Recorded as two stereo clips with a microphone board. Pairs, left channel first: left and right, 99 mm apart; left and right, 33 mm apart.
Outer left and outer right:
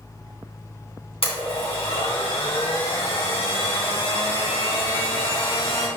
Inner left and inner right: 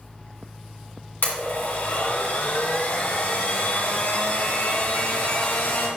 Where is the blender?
75° left (ahead or behind), 3 m.